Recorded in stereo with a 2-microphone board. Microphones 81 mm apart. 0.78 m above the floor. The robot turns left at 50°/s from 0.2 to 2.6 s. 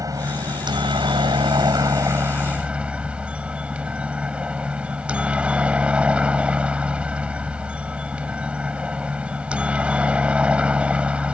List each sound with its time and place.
0.0 s a helicopter: 45° right; by 11.3 s 165° right